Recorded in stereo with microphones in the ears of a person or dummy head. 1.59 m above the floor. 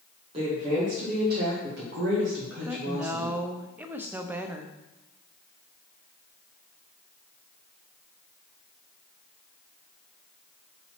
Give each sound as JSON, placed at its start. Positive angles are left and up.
{"t": 0.3, "sound": "a woman speaking", "side_deg": -30, "distance_m": 1.7}
{"t": 2.6, "sound": "a woman speaking", "side_deg": -10, "distance_m": 0.5}